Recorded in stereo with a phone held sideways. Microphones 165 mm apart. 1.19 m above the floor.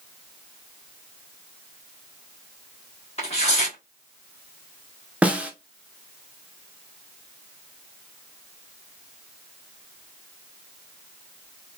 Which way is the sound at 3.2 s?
40° left (ahead or behind).